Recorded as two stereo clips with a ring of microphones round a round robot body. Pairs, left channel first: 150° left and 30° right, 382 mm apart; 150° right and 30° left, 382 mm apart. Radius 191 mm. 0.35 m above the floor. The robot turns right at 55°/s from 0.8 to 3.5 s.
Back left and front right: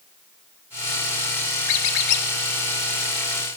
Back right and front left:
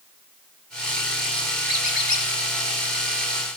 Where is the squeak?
135° left, 0.6 m; by 2.3 s 165° left, 0.6 m.